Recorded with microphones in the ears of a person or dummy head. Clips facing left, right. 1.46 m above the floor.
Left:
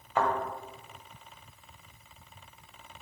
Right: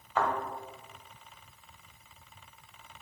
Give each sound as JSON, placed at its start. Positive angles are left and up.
{"t": 0.2, "sound": "a thud", "side_deg": 10, "distance_m": 1.3}